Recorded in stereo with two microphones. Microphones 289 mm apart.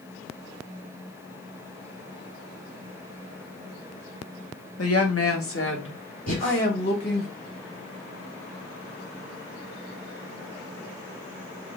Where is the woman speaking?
60° left (ahead or behind), 1.2 m; by 7.3 s 35° left (ahead or behind), 2.5 m.